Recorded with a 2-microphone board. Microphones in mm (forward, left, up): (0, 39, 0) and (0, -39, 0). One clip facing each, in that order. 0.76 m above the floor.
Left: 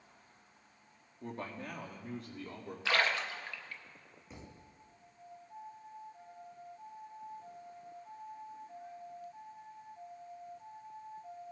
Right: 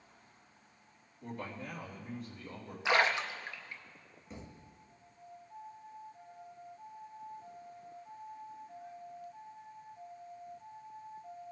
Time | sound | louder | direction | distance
1.2 | a man speaking | even | 40° left (ahead or behind) | 1.6 m
2.9 | a splash | right 3 dB | 20° right (ahead or behind) | 0.6 m
4.3 | a thud | right 3 dB | centre (ahead or behind) | 1.4 m